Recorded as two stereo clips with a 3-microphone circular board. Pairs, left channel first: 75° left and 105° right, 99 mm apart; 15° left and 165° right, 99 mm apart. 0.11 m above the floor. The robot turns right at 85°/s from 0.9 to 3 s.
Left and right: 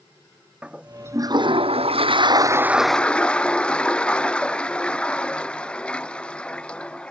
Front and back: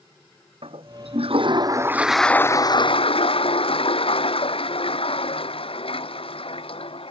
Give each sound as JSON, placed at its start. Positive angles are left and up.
{"t": 0.6, "sound": "a toilet flushing", "azimuth_deg": 180}